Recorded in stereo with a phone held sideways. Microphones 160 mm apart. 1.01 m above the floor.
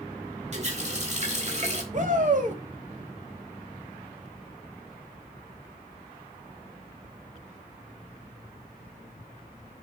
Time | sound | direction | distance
0.5 | a running tap | 45° right (ahead or behind) | 1.5 m
1.9 | a shout | 50° right (ahead or behind) | 1.7 m